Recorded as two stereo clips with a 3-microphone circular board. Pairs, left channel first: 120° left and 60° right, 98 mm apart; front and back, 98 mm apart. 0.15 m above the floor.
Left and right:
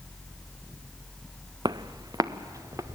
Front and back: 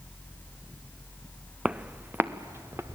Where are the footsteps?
100° right, 0.6 m; by 3.0 s 120° right, 1.5 m.